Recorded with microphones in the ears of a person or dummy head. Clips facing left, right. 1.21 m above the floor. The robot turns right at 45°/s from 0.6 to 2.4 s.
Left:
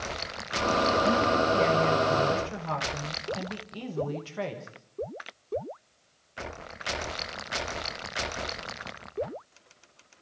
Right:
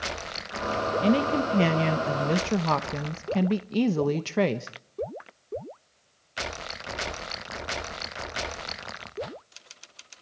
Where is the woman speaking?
145° right, 1.0 m; by 4.7 s 80° right, 1.0 m.